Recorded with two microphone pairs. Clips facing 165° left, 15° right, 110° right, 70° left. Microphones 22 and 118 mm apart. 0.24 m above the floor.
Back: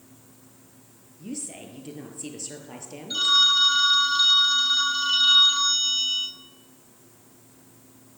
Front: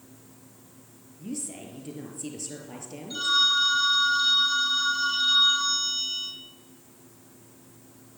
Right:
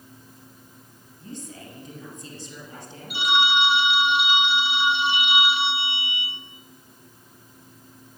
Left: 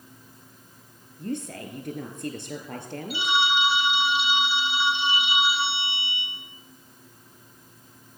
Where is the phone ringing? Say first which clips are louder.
Back 3 dB, right 2 dB; 140° right, 4.5 m.